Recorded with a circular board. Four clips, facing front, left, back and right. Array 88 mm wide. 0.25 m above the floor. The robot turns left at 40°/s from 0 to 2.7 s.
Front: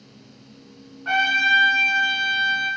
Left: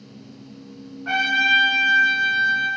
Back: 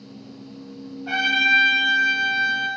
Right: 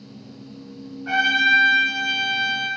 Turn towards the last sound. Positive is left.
turn(degrees=-45)